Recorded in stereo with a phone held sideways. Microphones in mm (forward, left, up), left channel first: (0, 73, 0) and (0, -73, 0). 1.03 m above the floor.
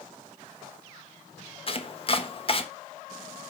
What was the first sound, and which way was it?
Chopping, 40° left (ahead or behind).